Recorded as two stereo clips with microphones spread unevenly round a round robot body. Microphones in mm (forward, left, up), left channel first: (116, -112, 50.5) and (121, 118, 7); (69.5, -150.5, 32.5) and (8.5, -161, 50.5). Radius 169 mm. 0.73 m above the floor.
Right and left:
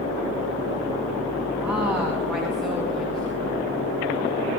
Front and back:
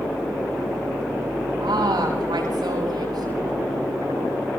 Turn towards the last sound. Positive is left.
turn(degrees=180)